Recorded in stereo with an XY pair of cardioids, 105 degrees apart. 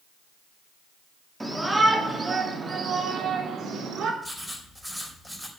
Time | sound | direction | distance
1.4 | a shout | 10° right | 3.5 m
4.2 | writing | straight ahead | 5 m